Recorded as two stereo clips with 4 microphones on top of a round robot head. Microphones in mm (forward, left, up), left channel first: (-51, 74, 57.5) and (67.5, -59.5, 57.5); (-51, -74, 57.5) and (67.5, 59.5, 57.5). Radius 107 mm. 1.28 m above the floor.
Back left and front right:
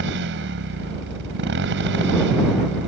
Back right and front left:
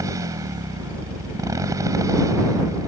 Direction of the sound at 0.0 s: 25° right.